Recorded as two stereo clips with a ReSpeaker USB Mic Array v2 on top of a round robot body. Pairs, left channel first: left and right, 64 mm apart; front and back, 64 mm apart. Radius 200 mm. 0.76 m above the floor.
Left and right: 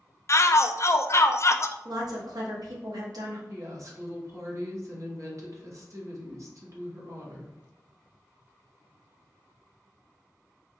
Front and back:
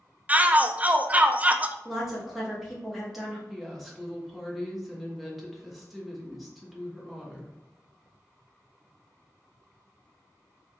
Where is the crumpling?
No crumpling in this recording.